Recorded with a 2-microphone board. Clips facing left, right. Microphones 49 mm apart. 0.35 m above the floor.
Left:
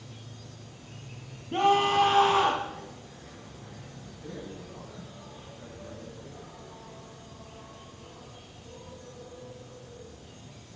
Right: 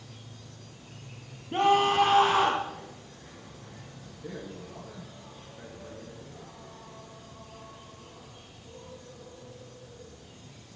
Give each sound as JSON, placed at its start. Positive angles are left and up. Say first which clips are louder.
{"t": 0.0, "sound": "an insect", "louder": "left 2 dB", "side_deg": 0, "distance_m": 7.0}
{"t": 1.5, "sound": "a scream", "louder": "even", "side_deg": -5, "distance_m": 2.5}
{"t": 4.2, "sound": "a man speaking", "louder": "right 1 dB", "side_deg": -60, "distance_m": 7.5}